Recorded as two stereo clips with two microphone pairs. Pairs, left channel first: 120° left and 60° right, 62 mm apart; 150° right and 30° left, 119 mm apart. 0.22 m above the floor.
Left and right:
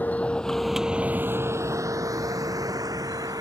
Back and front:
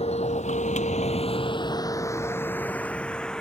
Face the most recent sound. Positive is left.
turn(degrees=-65)